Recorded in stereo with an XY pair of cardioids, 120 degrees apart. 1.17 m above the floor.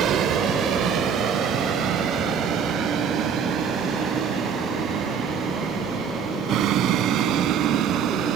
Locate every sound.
0.0 s a vehicle: 65° right; by 8.4 s 70° right